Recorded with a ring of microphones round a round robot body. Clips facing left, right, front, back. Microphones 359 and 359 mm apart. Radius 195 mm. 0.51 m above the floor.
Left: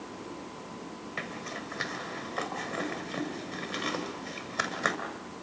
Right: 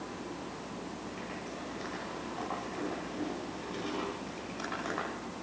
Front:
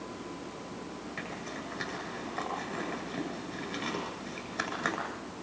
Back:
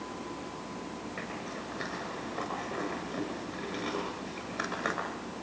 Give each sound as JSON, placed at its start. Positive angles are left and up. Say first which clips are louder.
{"t": 1.2, "sound": "a zipper", "louder": "left 1 dB, back 1 dB", "azimuth_deg": 75, "distance_m": 7.0}